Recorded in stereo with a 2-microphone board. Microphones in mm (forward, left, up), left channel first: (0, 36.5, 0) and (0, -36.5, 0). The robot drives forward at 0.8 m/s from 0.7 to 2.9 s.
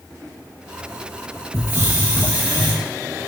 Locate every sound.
1.5 s a hiss: 35° right (ahead or behind), 0.9 m; by 2.7 s 15° right (ahead or behind), 1.8 m